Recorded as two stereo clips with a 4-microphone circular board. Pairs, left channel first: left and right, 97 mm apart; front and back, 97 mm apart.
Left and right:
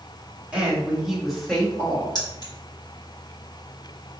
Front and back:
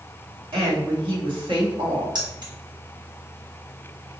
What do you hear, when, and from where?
0.5 s a woman speaking: 165° right, 1.7 m; by 2.0 s 160° left, 1.4 m
2.1 s keys jangling: 140° left, 1.5 m